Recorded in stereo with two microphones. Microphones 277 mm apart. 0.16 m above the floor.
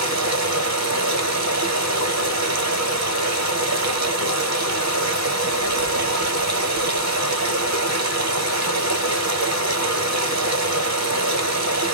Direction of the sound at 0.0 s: 80° right.